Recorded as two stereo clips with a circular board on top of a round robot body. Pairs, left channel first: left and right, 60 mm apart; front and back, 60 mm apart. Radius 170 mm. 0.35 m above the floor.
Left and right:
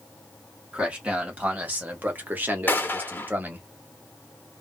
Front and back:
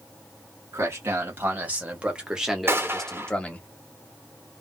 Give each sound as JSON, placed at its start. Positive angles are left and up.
{"t": 0.7, "sound": "a man speaking", "azimuth_deg": -150, "distance_m": 2.0}
{"t": 2.7, "sound": "a gunshot", "azimuth_deg": 145, "distance_m": 1.8}